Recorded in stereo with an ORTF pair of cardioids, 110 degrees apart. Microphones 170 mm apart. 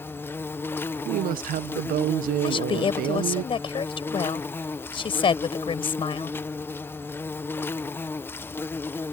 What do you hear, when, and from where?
0.0 s an insect: 15° left
1.1 s a woman speaking: 65° right
2.4 s a woman speaking: 35° left